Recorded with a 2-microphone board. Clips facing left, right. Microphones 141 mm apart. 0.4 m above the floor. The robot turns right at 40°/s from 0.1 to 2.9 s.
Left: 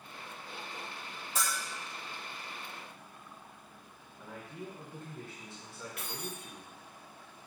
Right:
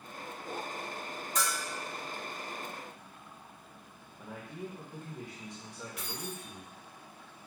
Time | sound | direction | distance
1.4 | a bell | 5° left (ahead or behind) | 1.7 m
4.2 | a man speaking | 20° right (ahead or behind) | 1.1 m
6.0 | keys jangling | 55° left (ahead or behind) | 0.8 m